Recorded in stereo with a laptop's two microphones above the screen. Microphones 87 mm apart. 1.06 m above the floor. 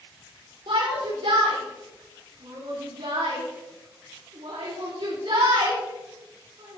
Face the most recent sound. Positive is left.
turn(degrees=-45)  # may be behind; listen again after turning